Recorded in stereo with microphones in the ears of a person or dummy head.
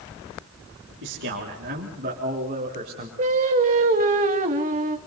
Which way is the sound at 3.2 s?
35° right (ahead or behind).